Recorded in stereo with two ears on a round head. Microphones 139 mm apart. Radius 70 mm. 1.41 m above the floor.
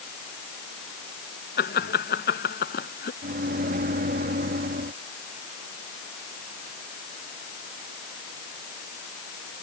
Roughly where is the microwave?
Right.